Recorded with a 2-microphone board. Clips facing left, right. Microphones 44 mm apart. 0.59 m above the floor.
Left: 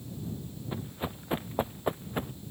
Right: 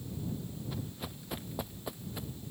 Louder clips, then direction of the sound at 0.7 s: Left 5 dB; 25° left (ahead or behind).